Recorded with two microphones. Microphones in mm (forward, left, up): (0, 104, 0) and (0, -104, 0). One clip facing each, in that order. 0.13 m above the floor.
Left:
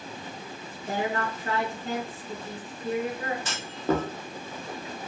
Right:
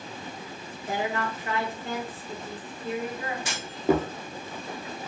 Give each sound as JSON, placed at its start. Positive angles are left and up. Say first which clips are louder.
{"t": 0.9, "sound": "a woman speaking", "louder": "even", "side_deg": 40, "distance_m": 2.0}
{"t": 3.5, "sound": "a clunk", "louder": "right 5 dB", "side_deg": -15, "distance_m": 0.6}